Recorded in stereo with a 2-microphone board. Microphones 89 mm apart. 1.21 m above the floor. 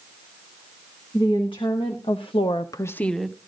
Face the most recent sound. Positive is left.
turn(degrees=-5)  # may be behind; listen again after turning